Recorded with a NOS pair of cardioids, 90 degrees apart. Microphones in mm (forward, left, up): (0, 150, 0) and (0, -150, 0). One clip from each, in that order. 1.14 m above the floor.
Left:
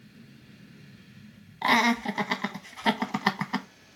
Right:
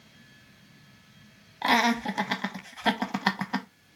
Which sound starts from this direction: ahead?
Laughter, at 1.6 s.